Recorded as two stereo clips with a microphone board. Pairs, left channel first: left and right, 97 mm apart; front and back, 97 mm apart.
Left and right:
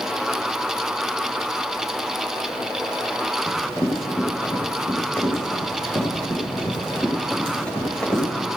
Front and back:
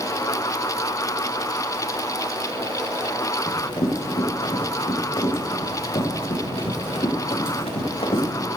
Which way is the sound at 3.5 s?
30° left.